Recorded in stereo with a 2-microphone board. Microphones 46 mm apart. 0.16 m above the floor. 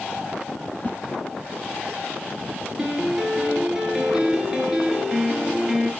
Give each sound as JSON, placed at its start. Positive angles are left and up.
{"t": 0.8, "sound": "a whoosh", "side_deg": 40, "distance_m": 0.9}
{"t": 2.8, "sound": "a piano", "side_deg": -10, "distance_m": 2.5}